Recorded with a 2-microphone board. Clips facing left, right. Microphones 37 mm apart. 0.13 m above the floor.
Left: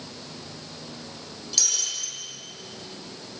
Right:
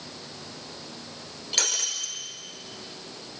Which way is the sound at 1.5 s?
40° right (ahead or behind).